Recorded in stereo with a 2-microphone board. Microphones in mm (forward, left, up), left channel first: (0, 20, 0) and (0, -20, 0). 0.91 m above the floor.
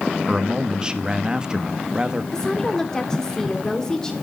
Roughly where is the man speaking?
Right.